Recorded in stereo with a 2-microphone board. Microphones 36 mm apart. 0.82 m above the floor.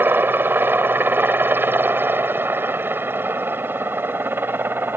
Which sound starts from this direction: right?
A helicopter, at 0.0 s.